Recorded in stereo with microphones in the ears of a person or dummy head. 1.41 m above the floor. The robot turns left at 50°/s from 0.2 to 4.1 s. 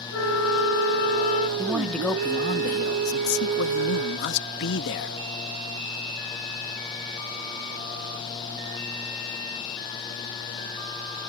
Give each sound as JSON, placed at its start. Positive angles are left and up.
{"t": 0.1, "sound": "a flute", "azimuth_deg": 95}
{"t": 1.6, "sound": "a man speaking", "azimuth_deg": -170}